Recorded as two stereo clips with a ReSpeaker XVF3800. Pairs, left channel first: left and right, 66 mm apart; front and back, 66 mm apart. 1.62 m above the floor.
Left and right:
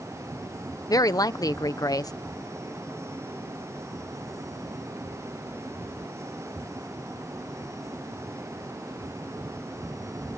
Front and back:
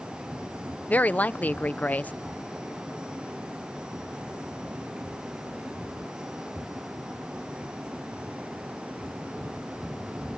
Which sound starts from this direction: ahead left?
A woman speaking, at 0.9 s.